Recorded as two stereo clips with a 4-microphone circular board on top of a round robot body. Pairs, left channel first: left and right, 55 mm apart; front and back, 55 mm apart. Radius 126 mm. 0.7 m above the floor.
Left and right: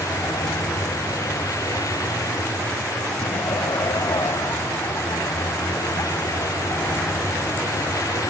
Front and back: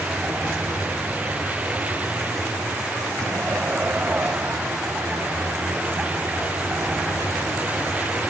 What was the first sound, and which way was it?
A vehicle, 115° left.